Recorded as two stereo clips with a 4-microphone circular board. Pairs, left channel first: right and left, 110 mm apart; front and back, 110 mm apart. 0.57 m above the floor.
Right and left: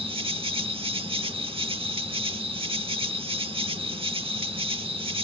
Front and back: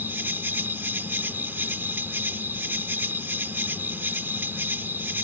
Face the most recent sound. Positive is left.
turn(degrees=110)